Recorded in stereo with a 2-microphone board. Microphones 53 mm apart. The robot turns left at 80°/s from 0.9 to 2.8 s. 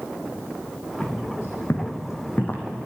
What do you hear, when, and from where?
1.0 s footsteps: 30° left (ahead or behind), 3 m